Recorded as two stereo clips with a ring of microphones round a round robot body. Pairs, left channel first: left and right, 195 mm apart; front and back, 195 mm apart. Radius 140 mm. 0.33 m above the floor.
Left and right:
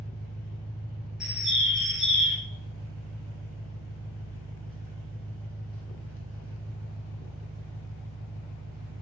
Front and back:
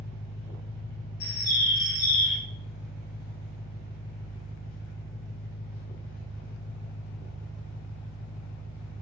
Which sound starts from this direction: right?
An engine running, at 0.0 s.